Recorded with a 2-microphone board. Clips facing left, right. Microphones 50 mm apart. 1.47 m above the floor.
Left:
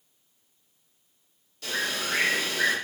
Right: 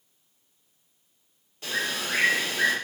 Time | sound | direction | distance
1.6 | a bird | 25° right (ahead or behind) | 1.5 m